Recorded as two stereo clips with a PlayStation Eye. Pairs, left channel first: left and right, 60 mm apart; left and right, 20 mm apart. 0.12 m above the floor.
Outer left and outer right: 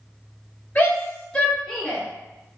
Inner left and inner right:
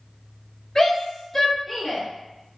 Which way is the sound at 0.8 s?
30° left (ahead or behind).